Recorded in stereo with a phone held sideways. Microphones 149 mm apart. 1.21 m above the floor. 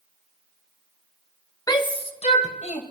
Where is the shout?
25° left (ahead or behind), 1.0 m; by 2.8 s 55° left (ahead or behind), 1.7 m.